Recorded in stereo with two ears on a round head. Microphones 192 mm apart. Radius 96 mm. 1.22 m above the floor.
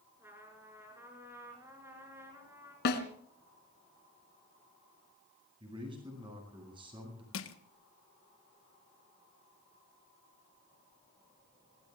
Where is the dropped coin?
No dropped coin in this recording.